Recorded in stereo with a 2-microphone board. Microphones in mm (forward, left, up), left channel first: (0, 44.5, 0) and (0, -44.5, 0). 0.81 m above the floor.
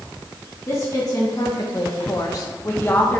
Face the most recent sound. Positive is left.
turn(degrees=25)  # may be behind; listen again after turning